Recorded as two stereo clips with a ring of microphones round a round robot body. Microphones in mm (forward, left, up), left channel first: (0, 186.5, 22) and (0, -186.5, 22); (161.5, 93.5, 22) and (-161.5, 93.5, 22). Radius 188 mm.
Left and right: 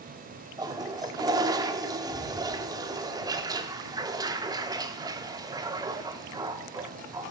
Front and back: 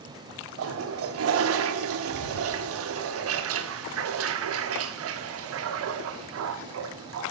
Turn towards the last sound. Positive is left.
turn(degrees=-165)